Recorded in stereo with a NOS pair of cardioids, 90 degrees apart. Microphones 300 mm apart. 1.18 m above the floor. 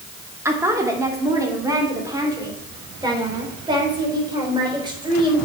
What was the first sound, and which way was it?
A woman speaking, 10° right.